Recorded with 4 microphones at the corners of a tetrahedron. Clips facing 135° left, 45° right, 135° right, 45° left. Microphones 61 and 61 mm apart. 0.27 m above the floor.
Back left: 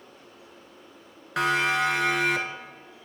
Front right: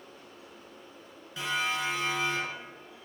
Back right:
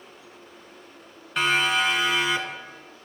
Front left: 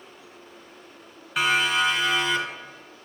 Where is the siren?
130° left, 3.5 m; by 3.0 s 140° left, 4.5 m.